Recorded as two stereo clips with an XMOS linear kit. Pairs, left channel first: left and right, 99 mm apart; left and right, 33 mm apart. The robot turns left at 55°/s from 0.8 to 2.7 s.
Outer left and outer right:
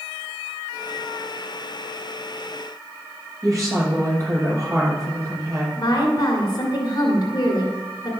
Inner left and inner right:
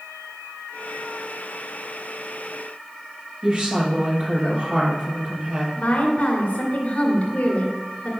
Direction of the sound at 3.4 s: 35° right (ahead or behind).